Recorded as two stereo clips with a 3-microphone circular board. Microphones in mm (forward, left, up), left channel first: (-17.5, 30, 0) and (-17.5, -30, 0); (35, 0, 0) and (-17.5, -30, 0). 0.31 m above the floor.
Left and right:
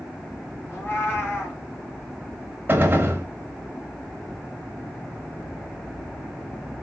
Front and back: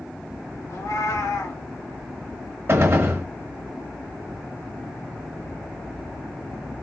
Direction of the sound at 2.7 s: 130° right.